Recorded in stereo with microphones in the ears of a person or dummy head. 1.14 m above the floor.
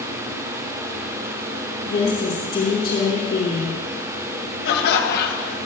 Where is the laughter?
55° left (ahead or behind), 1.5 m.